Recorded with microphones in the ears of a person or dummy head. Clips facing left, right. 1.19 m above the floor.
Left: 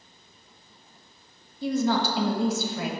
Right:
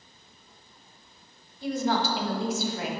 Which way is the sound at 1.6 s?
75° left (ahead or behind).